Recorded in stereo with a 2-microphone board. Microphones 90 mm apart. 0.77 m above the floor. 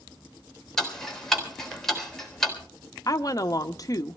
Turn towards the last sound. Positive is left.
turn(degrees=45)  # may be behind; listen again after turning